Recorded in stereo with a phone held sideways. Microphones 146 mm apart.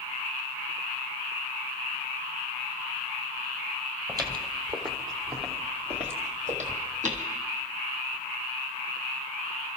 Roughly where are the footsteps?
Right.